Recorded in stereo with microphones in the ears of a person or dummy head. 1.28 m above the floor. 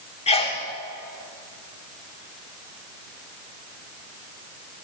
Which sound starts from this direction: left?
A sneeze, at 0.3 s.